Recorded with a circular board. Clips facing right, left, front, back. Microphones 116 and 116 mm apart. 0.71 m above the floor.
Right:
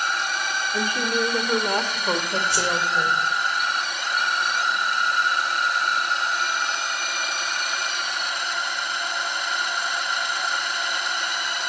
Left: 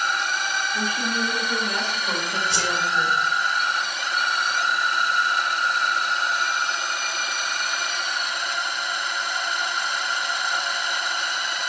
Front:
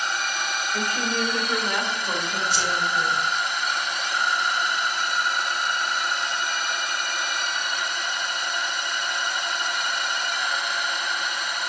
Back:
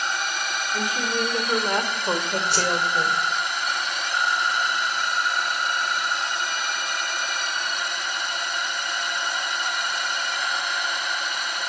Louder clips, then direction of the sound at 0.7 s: Right 5 dB, back 1 dB; 90° right.